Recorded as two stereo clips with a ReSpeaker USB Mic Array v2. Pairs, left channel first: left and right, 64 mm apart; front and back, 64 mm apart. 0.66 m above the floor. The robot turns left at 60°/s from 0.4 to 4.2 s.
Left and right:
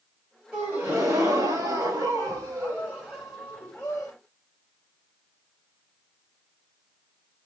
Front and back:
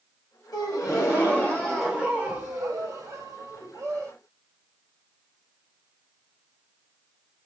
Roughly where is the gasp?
Ahead.